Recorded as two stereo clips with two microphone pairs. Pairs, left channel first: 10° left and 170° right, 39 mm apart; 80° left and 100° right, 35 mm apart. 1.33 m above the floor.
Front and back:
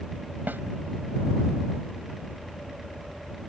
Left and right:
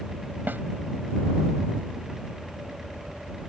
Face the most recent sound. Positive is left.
turn(degrees=-130)